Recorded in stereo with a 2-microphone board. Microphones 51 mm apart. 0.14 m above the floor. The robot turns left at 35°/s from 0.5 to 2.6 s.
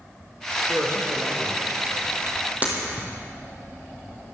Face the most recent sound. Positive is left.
turn(degrees=-30)  # may be behind; listen again after turning